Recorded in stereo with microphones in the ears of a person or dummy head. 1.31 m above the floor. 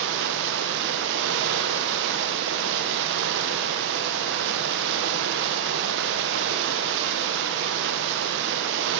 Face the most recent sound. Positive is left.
turn(degrees=-65)  # may be behind; listen again after turning